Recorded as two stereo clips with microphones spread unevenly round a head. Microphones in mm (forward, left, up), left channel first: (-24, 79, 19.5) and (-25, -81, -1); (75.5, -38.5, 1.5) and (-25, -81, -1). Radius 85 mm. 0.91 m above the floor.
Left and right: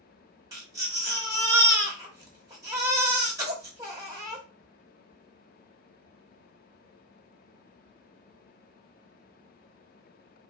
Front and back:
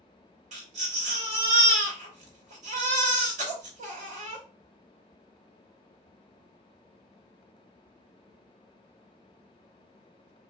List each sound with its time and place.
0.5 s a baby crying: 160° right, 1.3 m